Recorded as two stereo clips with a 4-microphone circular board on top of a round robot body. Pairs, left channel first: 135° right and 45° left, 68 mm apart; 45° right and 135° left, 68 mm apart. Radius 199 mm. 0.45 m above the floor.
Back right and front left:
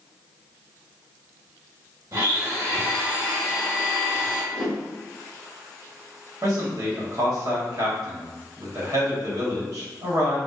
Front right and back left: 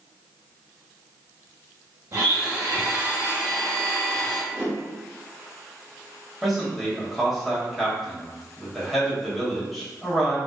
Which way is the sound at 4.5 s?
160° left.